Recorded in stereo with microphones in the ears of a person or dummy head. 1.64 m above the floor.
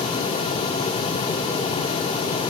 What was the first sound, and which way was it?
Only background noise.